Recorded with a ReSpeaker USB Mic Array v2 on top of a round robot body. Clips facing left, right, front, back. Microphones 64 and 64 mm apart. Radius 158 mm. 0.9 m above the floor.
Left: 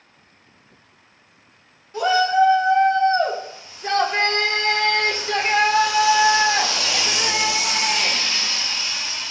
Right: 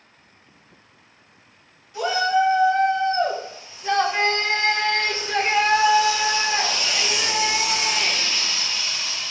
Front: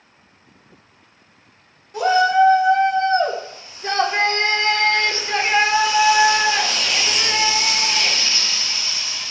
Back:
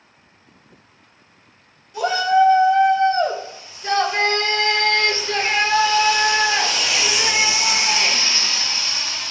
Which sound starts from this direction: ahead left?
A shout, at 1.9 s.